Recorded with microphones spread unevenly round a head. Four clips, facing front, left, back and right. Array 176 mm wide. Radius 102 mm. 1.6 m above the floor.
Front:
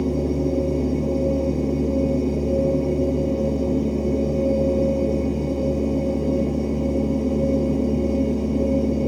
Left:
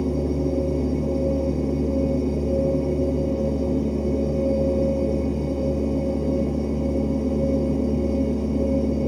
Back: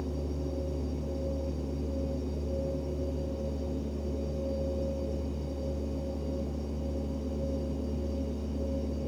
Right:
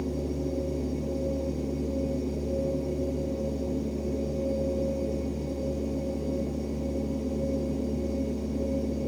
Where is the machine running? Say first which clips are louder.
Left 8 dB, front 14 dB; 25° left.